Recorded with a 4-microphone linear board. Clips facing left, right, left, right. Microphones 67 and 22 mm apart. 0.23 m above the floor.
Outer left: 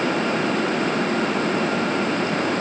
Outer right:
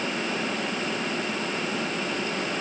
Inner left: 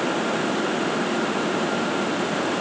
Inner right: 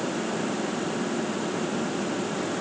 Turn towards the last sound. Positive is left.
No sound to turn to.